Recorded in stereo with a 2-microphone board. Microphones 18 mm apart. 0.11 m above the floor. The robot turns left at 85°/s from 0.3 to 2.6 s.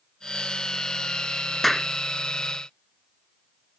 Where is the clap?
10° left (ahead or behind); by 1.9 s 15° left (ahead or behind).